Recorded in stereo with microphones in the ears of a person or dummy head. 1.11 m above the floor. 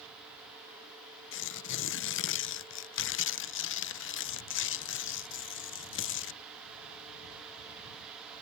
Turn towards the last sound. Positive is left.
turn(degrees=55)  # may be behind; listen again after turning